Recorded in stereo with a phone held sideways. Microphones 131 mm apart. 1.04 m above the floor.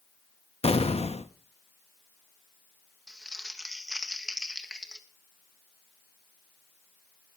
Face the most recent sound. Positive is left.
turn(degrees=0)  # may be behind; listen again after turning